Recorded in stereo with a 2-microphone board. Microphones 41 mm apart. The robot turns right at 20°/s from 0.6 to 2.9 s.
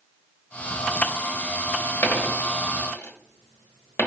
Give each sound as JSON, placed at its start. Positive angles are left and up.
{"t": 2.0, "sound": "a dropped coin", "side_deg": 65, "distance_m": 0.9}